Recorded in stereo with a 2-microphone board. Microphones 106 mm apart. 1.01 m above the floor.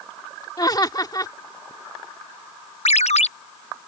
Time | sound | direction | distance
0.6 | laughter | 35° left (ahead or behind) | ?
2.9 | a ringtone | 80° left | ?